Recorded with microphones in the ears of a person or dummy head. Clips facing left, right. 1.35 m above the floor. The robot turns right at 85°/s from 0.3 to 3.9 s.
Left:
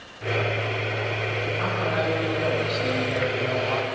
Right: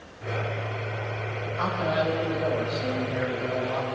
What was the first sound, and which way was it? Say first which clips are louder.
A man speaking: right 2 dB; 85° right.